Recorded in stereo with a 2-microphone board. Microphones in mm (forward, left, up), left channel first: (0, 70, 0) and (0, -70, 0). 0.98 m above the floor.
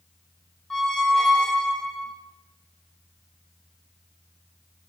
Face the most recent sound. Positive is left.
turn(degrees=5)  # may be behind; listen again after turning